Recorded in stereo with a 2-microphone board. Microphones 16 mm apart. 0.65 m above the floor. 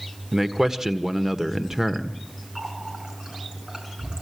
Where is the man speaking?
25° right (ahead or behind), 1.6 m.